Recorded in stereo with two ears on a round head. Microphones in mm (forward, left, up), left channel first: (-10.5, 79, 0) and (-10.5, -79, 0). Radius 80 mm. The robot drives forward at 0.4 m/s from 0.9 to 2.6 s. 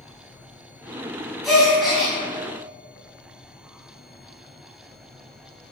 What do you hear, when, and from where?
1.4 s a gasp: centre (ahead or behind), 3.5 m